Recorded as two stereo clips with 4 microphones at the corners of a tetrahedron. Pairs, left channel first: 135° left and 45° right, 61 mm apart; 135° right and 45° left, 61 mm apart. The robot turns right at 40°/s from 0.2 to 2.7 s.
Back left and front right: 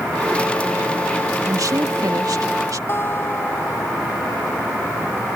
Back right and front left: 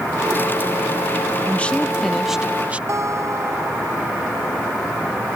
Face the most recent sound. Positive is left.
turn(degrees=85)